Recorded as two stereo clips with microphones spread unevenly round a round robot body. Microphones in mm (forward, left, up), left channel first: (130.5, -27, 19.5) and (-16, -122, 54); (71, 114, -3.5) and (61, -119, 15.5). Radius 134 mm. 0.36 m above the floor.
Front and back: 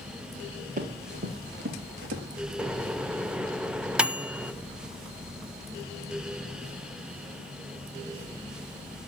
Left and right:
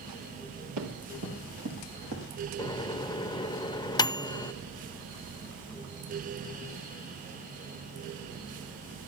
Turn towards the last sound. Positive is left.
turn(degrees=110)